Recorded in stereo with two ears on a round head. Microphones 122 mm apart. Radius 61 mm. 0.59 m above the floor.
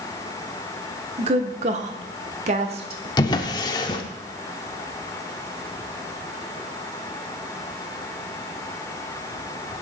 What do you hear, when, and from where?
1.2 s a woman speaking: 45° right (ahead or behind), 1.2 m; by 3.1 s 40° right (ahead or behind), 1.2 m
3.2 s a drawer: 30° left (ahead or behind), 0.8 m